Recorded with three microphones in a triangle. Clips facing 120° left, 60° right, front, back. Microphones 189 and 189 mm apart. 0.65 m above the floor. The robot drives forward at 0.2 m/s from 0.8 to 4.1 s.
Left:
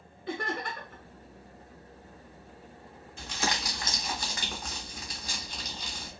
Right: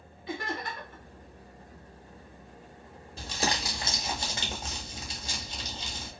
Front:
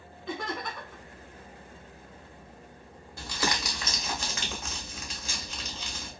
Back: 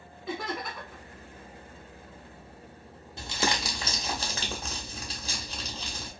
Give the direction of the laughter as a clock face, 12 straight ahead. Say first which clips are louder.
Left 1 dB, back 1 dB; 9 o'clock.